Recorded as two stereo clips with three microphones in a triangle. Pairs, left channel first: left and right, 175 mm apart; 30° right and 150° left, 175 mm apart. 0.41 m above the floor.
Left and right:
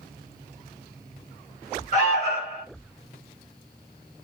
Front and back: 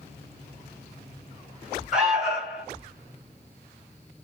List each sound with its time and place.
1.9 s an alarm: 65° left, 2 m